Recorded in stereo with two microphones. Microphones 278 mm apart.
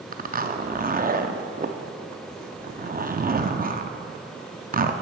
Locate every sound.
0.1 s a zipper: 30° right (ahead or behind), 0.5 m